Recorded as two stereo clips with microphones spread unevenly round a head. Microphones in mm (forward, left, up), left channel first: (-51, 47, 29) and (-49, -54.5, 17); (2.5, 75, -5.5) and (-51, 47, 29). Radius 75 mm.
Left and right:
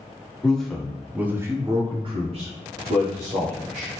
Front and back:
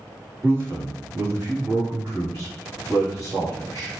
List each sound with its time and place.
0.4 s a man speaking: 170° left, 1.0 m; by 3.9 s 70° right, 1.3 m